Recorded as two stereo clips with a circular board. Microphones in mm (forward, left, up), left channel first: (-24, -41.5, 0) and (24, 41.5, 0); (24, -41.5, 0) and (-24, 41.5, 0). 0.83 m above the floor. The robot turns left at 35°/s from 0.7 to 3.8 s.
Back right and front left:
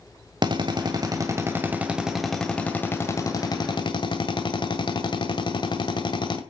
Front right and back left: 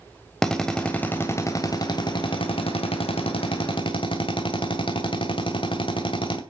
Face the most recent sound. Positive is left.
turn(degrees=-85)